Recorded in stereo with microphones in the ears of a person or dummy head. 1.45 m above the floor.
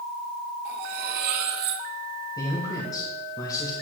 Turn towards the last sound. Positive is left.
turn(degrees=20)  # may be behind; listen again after turning